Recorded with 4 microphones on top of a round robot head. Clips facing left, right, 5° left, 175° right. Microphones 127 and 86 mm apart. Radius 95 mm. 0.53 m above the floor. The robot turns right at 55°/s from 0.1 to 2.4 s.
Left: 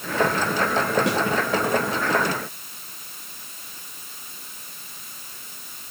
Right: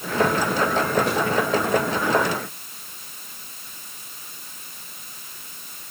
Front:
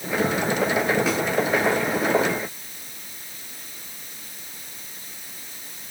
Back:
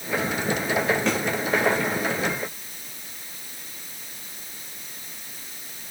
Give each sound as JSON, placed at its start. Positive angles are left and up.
{"t": 1.1, "sound": "a snare drum", "azimuth_deg": 85, "distance_m": 6.0}